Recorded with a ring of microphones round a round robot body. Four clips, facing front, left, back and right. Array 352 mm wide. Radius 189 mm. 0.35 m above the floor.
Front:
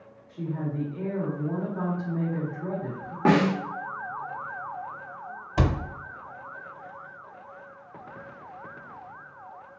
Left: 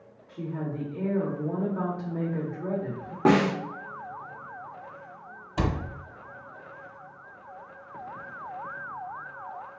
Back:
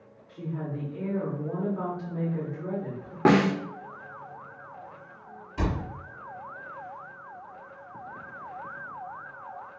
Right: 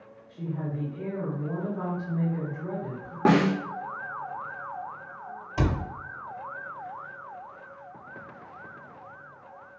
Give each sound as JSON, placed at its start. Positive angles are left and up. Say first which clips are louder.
{"t": 0.3, "sound": "a woman speaking", "louder": "left 1 dB, front 3 dB", "azimuth_deg": 85, "distance_m": 1.2}
{"t": 3.2, "sound": "a snare drum", "louder": "even, even", "azimuth_deg": -165, "distance_m": 0.8}
{"t": 5.6, "sound": "a cupboard door", "louder": "right 1 dB, front 4 dB", "azimuth_deg": 5, "distance_m": 0.6}